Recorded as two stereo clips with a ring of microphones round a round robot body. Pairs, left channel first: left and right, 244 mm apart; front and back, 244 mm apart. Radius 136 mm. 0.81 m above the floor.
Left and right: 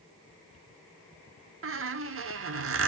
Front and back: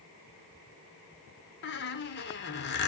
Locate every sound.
1.6 s a squeak: 55° right, 1.0 m